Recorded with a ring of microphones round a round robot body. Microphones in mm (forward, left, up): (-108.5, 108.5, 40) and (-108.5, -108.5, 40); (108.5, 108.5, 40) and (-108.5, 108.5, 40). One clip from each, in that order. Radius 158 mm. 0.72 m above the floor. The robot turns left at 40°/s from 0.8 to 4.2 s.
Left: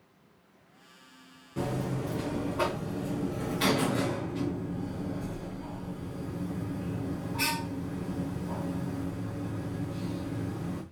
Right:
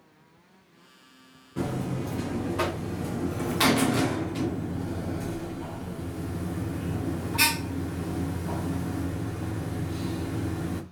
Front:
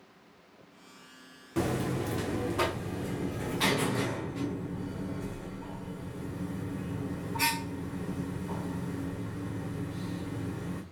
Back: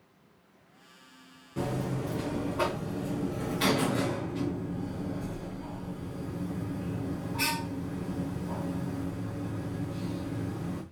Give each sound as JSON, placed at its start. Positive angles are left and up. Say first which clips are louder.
{"t": 1.6, "sound": "a buzzer", "louder": "right 1 dB, front 2 dB", "azimuth_deg": 0, "distance_m": 0.7}